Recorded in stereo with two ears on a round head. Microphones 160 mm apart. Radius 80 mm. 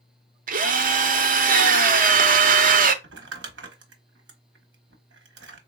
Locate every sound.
0.5 s a drill: 50° right (ahead or behind), 0.6 m
3.0 s crumpling: 75° right (ahead or behind), 0.9 m